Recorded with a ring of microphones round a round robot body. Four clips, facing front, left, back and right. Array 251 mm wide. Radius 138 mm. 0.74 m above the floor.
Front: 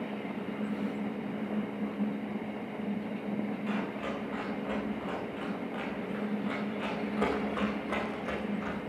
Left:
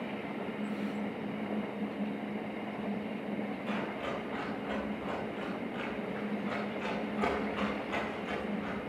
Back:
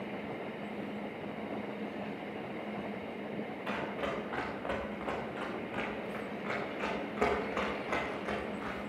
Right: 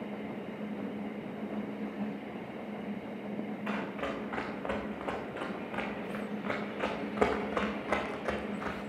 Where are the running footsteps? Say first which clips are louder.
Right 2 dB, front 2 dB; 120° right, 4.5 m; by 8.8 s 85° right, 3 m.